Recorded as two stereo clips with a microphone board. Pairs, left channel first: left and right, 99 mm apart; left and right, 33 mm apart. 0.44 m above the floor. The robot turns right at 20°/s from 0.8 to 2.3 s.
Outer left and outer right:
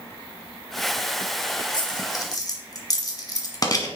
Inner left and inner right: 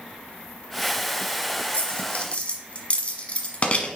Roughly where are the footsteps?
No footsteps in this recording.